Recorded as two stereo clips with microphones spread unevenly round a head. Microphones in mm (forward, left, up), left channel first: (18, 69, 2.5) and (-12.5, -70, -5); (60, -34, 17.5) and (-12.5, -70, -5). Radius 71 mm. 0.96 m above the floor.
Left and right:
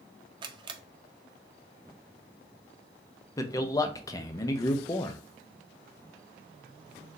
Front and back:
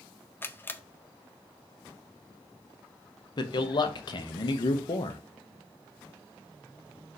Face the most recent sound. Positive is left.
turn(degrees=20)